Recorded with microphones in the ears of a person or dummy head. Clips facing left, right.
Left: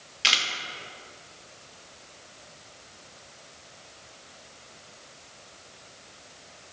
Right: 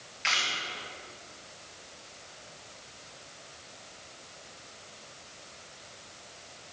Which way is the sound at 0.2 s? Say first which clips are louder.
Left 2 dB; 45° left (ahead or behind).